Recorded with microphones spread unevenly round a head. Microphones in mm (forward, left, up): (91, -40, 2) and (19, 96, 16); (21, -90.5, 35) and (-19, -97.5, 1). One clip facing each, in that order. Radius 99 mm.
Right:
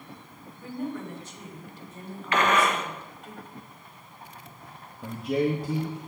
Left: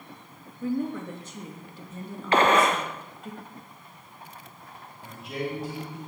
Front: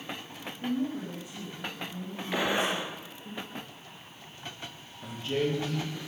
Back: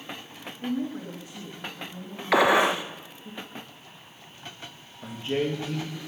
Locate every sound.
0.6 s a woman speaking: 130° left, 3.5 m
2.3 s a gunshot: straight behind, 1.1 m
5.0 s a man speaking: 105° right, 2 m